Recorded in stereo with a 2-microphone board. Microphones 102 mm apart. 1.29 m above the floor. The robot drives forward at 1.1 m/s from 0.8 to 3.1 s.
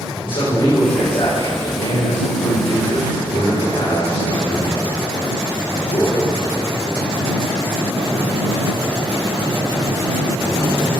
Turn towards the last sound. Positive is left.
turn(degrees=80)